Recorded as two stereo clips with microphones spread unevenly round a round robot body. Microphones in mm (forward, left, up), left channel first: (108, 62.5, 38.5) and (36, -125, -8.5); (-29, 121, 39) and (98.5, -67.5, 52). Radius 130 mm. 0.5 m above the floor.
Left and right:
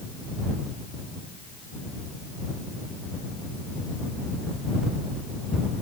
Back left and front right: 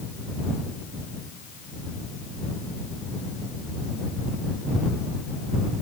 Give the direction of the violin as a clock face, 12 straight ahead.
No violin in this recording.